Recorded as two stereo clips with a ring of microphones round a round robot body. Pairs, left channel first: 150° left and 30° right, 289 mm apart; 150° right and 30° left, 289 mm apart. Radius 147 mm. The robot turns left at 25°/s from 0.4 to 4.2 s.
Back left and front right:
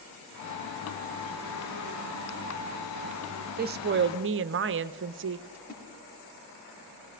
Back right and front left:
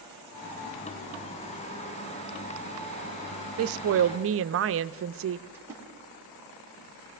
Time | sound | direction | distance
3.6 | a woman speaking | 20° left | 0.5 m
5.5 | a splash | 110° left | 5 m